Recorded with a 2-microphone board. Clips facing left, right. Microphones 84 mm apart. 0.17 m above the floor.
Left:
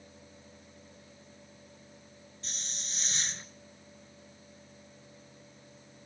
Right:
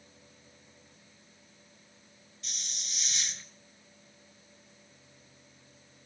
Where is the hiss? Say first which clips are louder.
Left 1 dB; 40° left (ahead or behind), 1.1 m.